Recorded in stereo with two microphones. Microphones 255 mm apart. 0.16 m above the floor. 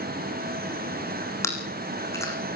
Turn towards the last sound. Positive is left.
turn(degrees=10)  # may be behind; listen again after turning